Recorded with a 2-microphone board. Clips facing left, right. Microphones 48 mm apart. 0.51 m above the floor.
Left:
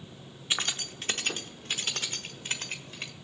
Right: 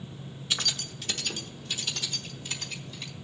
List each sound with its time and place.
0.5 s keys jangling: 25° left (ahead or behind), 0.7 m; by 3.1 s 50° left (ahead or behind), 1.6 m